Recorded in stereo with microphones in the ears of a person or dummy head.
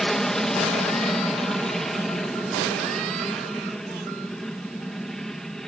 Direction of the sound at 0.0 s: 5° left (ahead or behind).